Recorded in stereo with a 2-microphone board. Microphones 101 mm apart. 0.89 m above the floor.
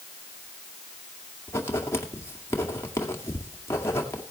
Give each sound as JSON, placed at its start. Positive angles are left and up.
{"t": 1.5, "sound": "writing", "side_deg": 25, "distance_m": 2.0}